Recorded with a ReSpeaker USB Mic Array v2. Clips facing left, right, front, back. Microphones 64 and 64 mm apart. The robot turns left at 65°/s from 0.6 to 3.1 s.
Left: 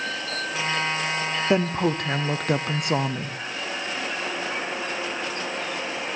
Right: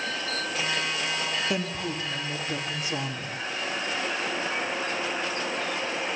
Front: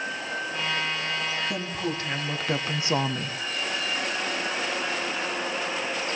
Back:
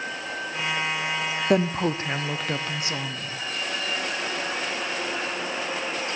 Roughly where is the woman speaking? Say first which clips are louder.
Left 8 dB, back 8 dB; behind left.